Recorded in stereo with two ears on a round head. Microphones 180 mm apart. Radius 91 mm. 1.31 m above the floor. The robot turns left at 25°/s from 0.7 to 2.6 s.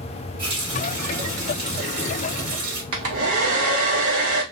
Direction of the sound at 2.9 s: 80° right.